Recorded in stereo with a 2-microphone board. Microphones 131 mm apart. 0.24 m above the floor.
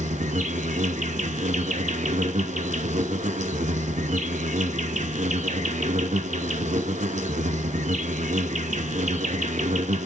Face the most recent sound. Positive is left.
turn(degrees=-70)  # may be behind; listen again after turning